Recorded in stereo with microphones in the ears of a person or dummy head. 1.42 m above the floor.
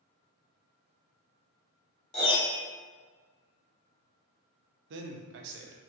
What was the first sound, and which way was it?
A piano, 35° left (ahead or behind).